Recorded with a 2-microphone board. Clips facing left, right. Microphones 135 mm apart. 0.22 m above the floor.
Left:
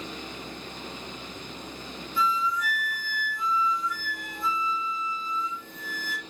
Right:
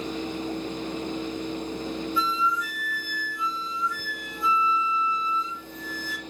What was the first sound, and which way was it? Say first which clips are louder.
A flute: left 3 dB; 45° left (ahead or behind).